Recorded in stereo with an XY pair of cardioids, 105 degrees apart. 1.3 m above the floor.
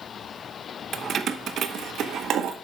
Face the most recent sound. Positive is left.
turn(degrees=-70)